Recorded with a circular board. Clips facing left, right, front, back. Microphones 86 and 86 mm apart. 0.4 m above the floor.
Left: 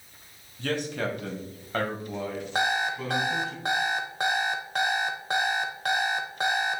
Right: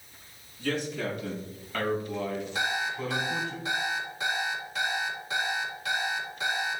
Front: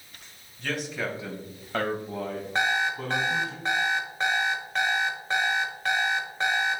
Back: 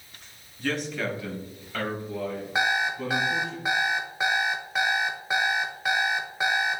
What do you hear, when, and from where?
0.6 s a man speaking: 95° left, 2 m; by 3.5 s 10° right, 3.5 m
2.5 s an alarm clock: 100° left, 1.1 m